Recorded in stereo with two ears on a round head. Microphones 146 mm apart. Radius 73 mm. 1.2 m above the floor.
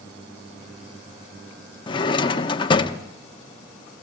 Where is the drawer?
30° left (ahead or behind), 0.9 m.